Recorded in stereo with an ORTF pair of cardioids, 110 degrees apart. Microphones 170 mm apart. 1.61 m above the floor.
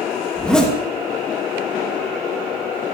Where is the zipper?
5° left, 2.5 m.